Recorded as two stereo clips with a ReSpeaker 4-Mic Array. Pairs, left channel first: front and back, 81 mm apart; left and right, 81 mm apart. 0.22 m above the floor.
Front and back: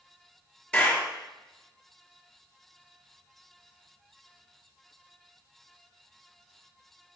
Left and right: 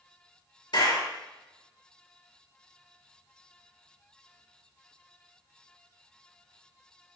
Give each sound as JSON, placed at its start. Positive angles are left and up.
{"t": 0.7, "sound": "a clap", "azimuth_deg": 80, "distance_m": 3.5}